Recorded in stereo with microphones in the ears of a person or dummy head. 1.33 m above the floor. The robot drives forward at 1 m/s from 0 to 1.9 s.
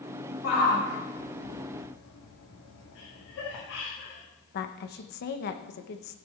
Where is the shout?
50° left (ahead or behind), 3 m; by 3.6 s 80° left, 2.5 m.